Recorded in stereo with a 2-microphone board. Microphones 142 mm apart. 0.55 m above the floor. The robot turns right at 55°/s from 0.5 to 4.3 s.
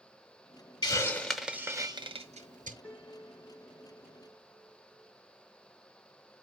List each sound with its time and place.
0.8 s a hiss: 30° left (ahead or behind), 0.8 m; by 2.7 s 70° right (ahead or behind), 0.8 m
2.8 s a piano: 15° left, 4 m; by 5.1 s 95° left, 4 m